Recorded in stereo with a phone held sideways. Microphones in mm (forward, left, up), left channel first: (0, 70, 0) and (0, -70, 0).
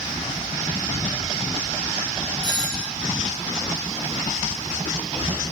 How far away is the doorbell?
About 10 m.